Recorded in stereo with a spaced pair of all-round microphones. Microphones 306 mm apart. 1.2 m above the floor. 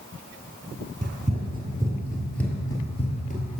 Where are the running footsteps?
25° right (ahead or behind), 1.4 m; by 3.6 s 30° left (ahead or behind), 1.4 m.